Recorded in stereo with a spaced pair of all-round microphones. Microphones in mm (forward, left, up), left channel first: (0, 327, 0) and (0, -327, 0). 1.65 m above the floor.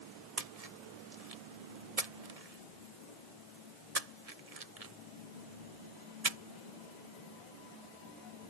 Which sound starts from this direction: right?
A splash, at 0.4 s.